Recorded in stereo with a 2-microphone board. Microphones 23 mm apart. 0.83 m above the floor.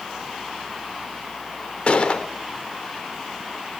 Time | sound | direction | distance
1.9 | a gunshot | 45° left (ahead or behind) | 1.0 m